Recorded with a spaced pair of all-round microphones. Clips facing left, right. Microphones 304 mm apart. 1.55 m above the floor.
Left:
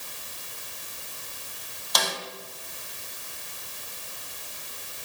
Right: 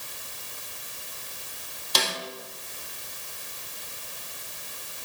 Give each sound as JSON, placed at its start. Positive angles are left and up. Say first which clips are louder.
{"t": 1.9, "sound": "a snare drum", "louder": "right 1 dB", "side_deg": -35, "distance_m": 2.5}